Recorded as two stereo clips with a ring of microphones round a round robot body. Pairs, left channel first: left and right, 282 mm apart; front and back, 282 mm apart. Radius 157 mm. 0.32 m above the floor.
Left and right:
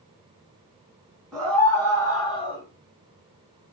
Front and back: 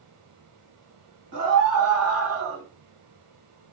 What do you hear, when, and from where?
1.3 s a scream: straight behind, 2.5 m; by 2.6 s 155° left, 2 m